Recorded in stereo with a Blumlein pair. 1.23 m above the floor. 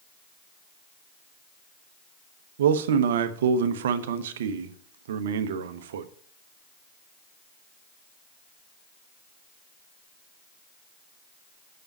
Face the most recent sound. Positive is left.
turn(degrees=-60)